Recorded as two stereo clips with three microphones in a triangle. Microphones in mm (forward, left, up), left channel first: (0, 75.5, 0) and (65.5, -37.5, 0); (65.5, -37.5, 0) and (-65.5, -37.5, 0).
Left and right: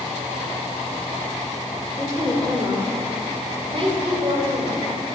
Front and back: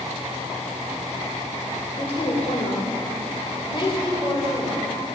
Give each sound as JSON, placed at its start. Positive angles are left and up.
{"t": 2.0, "sound": "a woman speaking", "azimuth_deg": 0, "distance_m": 2.0}